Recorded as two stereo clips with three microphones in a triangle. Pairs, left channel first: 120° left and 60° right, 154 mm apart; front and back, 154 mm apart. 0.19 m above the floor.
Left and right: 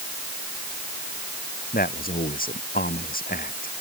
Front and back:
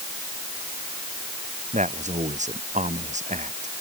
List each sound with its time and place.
1.7 s a man speaking: 140° left